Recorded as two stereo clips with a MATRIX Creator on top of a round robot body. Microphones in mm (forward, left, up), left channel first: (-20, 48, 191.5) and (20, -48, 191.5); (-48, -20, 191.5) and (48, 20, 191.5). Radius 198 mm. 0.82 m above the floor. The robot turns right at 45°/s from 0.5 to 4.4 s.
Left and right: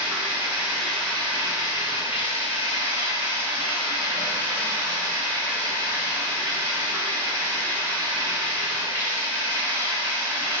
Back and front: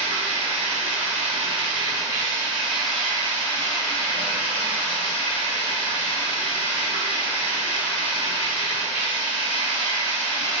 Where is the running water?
5° left, 1.4 m; by 10.6 s 175° right, 1.4 m.